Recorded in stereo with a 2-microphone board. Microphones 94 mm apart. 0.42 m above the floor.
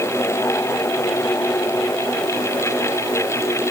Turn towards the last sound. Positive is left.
No sound to turn to.